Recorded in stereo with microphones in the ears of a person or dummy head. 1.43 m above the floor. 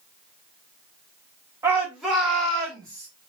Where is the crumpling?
I don't hear crumpling.